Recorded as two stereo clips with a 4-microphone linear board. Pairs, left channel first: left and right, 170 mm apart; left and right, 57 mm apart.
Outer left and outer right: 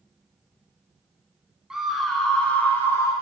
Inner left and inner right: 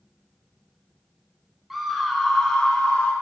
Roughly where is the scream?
Centre.